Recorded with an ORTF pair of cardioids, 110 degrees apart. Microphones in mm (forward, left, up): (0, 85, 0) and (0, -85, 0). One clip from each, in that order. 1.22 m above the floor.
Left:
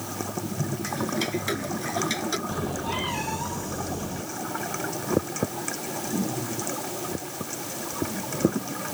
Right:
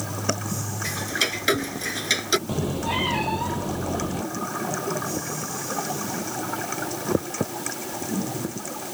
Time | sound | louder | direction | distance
0.8 | ticking | right 5 dB | 50° right | ?
2.5 | a cat meowing | right 3 dB | 30° right | ?